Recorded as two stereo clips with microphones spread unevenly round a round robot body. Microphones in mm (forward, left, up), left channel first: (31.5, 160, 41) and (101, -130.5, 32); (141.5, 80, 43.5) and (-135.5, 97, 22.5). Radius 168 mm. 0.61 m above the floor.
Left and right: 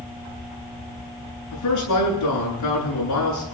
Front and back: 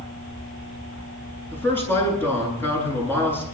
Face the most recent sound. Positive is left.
turn(degrees=80)